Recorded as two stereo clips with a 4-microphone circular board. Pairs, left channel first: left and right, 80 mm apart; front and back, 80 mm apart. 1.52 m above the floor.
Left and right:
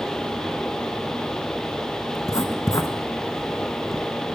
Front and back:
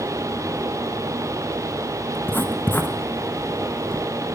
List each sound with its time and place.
2.1 s writing: 60° left, 1.0 m